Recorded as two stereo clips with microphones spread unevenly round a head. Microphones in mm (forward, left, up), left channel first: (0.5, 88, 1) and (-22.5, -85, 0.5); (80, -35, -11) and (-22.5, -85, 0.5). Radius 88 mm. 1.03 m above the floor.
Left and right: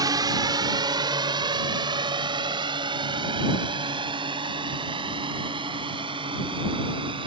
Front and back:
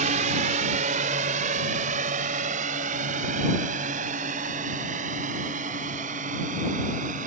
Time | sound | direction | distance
0.0 | a drone | 165° right | ?